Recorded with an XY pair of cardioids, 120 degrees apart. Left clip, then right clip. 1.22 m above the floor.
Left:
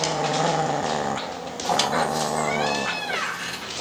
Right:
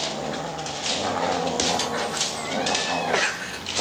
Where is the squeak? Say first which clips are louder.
Left 3 dB; 40° left, 2.5 m.